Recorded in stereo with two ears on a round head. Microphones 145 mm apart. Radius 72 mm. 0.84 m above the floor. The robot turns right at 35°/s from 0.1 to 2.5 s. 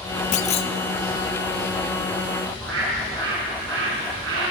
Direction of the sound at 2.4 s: 85° right.